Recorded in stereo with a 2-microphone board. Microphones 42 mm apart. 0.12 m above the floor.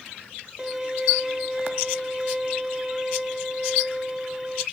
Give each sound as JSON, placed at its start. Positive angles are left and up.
{"t": 0.6, "sound": "a violin", "side_deg": -10, "distance_m": 0.6}